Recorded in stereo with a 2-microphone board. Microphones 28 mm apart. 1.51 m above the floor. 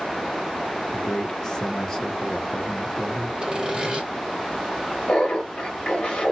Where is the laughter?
30° left (ahead or behind), 1.2 m.